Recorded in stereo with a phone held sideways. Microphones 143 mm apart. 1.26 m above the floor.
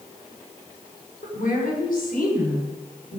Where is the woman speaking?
80° left, 5 m.